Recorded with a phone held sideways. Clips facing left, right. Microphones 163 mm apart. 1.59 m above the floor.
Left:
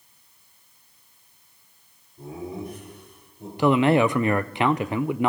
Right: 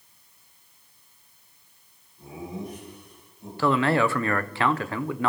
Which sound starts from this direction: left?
Laughter, at 2.2 s.